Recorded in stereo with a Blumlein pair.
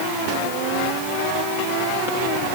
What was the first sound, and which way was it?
Only background noise.